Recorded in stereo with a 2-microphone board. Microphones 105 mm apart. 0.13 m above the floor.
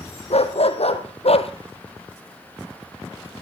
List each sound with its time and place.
0.3 s a dog barking: 75° left (ahead or behind), 2 m; by 1.5 s 70° left (ahead or behind), 1.3 m